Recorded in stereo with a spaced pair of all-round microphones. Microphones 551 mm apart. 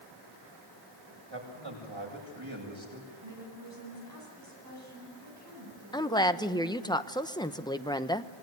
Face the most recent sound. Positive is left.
turn(degrees=10)  # may be behind; listen again after turning